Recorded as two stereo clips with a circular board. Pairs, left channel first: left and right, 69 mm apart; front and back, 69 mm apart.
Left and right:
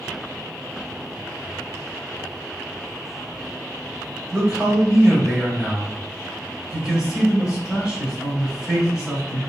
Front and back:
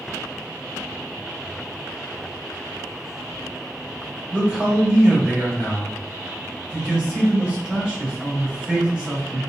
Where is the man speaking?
140° right, 1.1 m.